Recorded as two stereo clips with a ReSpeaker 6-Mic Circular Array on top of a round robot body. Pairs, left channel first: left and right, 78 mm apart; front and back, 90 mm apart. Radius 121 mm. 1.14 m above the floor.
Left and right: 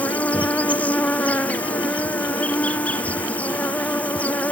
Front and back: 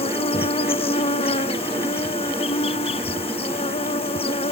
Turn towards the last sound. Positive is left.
turn(degrees=15)